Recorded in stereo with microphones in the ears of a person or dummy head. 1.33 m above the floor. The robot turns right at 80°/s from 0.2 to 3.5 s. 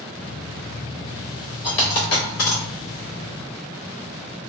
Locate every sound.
1.6 s a dropped coin: 25° left (ahead or behind), 1.8 m; by 2.6 s 65° left (ahead or behind), 1.8 m